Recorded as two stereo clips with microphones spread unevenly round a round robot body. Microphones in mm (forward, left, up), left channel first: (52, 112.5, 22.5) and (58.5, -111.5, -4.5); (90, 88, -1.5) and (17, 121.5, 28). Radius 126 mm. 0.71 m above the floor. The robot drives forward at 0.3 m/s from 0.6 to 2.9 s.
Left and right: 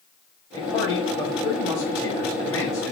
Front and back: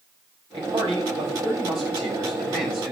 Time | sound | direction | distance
0.5 | a man speaking | 170° left | 4 m